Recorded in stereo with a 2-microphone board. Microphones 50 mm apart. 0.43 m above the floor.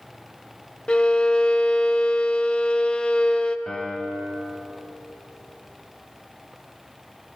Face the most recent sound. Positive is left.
turn(degrees=15)  # may be behind; listen again after turning